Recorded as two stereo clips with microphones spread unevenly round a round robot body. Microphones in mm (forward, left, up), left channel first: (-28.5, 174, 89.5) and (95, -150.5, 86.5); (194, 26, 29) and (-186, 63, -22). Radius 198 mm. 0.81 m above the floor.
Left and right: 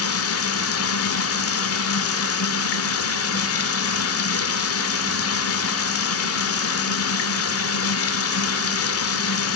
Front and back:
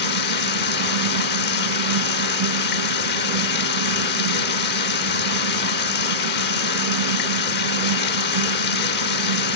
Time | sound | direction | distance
0.0 | running water | 60° left | 1.8 m